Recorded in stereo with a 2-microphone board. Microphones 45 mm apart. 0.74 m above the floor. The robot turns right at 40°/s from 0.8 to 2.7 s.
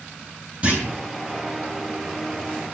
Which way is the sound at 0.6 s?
30° right (ahead or behind).